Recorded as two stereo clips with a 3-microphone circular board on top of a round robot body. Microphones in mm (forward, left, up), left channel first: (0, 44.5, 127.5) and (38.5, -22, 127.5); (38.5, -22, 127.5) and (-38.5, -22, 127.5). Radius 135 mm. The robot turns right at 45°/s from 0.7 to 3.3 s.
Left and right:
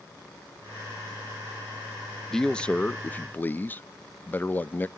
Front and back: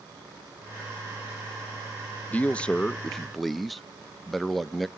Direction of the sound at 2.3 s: 45° left.